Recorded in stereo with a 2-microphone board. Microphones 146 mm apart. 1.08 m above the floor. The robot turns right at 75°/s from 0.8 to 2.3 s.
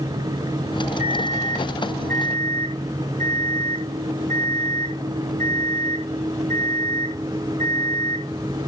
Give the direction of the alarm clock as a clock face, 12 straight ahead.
5 o'clock.